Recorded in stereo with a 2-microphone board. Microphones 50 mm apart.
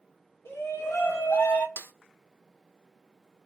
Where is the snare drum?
60° left (ahead or behind), 0.5 m.